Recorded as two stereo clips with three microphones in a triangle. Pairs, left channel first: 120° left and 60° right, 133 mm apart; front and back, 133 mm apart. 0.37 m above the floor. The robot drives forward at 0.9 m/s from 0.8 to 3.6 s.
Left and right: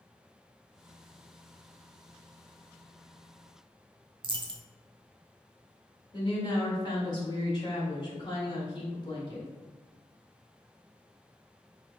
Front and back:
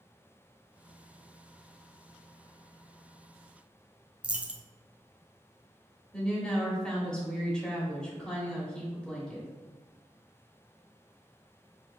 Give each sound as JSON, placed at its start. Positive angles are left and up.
{"t": 4.2, "sound": "a dropped coin", "azimuth_deg": -100, "distance_m": 0.6}
{"t": 6.1, "sound": "a woman speaking", "azimuth_deg": 80, "distance_m": 1.3}